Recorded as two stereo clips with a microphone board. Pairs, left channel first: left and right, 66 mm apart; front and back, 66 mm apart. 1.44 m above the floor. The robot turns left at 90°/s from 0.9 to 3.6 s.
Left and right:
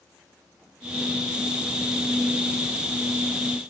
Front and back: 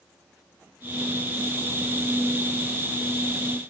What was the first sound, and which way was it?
Only background noise.